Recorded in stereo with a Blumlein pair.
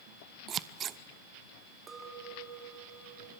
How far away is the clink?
About 2.5 m.